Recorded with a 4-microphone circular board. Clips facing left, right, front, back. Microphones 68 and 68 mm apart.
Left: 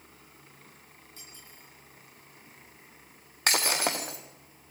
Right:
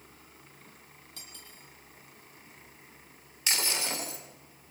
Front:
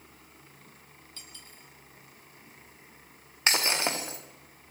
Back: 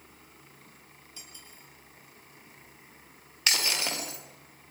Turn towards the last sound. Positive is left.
turn(degrees=60)